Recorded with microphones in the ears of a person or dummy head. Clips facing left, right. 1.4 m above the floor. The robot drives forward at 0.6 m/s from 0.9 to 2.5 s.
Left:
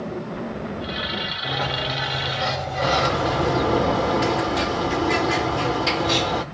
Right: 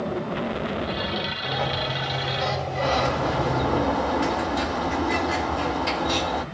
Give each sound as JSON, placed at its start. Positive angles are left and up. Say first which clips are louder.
{"t": 1.4, "sound": "a sliding door", "louder": "left 2 dB", "side_deg": 15, "distance_m": 1.0}
{"t": 2.8, "sound": "a bird", "louder": "left 2 dB", "side_deg": 35, "distance_m": 0.6}